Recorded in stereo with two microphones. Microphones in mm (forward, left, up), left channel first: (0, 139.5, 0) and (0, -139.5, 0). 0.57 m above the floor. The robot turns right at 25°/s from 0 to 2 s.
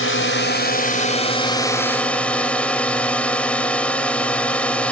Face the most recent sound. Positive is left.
turn(degrees=175)